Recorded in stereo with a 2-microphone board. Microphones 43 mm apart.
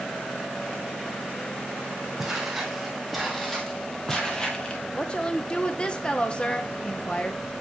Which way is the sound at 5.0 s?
25° left (ahead or behind).